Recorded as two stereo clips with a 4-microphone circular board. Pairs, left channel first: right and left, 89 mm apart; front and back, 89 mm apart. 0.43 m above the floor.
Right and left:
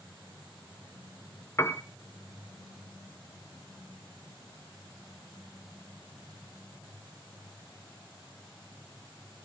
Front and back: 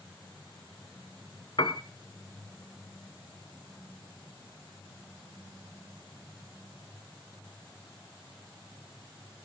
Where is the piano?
30° right, 0.9 m.